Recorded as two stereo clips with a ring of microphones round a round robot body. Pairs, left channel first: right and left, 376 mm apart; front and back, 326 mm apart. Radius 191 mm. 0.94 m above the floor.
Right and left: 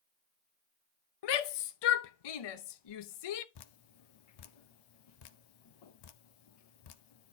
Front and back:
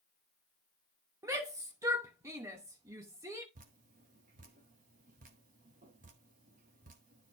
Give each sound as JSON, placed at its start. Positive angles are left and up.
{"t": 1.2, "sound": "a shout", "azimuth_deg": -100, "distance_m": 0.8}
{"t": 3.5, "sound": "dripping", "azimuth_deg": -110, "distance_m": 0.7}